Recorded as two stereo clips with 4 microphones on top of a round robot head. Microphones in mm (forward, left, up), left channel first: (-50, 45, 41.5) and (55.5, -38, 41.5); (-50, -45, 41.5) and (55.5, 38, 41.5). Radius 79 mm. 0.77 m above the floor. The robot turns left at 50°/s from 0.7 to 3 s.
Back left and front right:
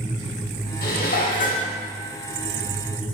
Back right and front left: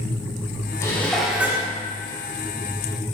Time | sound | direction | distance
0.8 | dishes clattering | 150° left | 1.0 m